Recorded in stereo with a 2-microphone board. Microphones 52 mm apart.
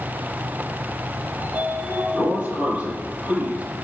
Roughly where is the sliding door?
Right.